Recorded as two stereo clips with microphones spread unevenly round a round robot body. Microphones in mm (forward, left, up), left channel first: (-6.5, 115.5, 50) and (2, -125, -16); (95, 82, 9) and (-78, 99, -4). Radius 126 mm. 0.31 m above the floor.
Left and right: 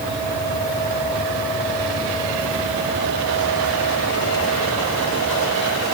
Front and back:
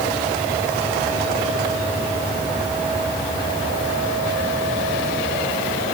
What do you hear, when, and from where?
Only background noise.